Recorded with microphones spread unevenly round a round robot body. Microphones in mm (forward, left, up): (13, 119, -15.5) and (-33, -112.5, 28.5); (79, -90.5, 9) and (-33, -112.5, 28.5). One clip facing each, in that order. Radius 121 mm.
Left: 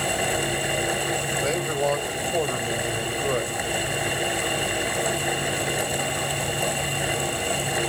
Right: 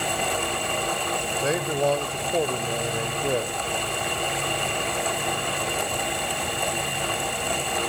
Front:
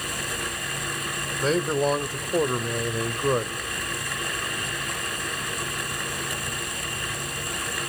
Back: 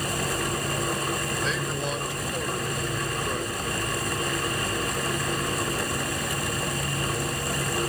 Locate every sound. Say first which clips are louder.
1.4 s a man speaking: right 2 dB, front 6 dB; 15° right, 1.9 m